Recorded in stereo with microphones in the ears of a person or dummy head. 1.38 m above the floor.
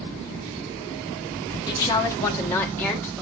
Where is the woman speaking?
25° left (ahead or behind), 0.9 m; by 3.2 s 10° left (ahead or behind), 1.7 m.